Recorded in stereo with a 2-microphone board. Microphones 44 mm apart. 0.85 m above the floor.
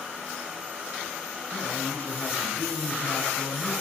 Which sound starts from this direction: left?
A man speaking, at 1.5 s.